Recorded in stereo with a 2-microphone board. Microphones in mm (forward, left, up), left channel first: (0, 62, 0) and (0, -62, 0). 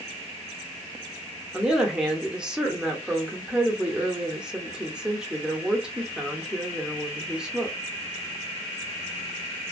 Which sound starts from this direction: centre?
A woman speaking, at 1.5 s.